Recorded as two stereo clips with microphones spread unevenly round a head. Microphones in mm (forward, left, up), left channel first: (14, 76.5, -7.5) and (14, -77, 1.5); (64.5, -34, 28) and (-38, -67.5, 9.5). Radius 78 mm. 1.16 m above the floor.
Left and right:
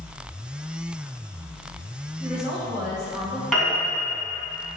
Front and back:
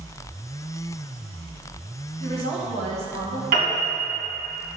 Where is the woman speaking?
175° right, 2.5 m.